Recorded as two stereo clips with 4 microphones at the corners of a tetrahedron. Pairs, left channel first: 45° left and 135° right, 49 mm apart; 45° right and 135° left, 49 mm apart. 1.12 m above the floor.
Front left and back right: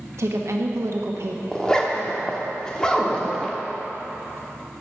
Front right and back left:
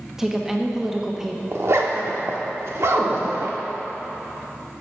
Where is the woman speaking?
145° right, 1.3 m.